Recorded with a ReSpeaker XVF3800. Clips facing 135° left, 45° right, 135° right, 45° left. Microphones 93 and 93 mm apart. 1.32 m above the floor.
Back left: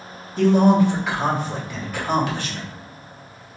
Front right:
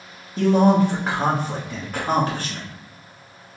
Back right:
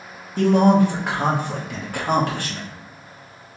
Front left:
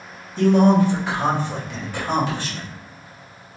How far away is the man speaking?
About 1.1 m.